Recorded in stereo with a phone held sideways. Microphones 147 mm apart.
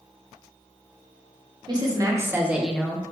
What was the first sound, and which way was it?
A woman speaking, 30° right (ahead or behind).